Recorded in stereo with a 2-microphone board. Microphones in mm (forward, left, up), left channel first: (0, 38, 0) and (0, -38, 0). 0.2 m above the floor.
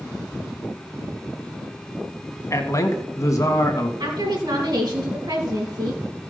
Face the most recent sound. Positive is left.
turn(degrees=-60)  # may be behind; listen again after turning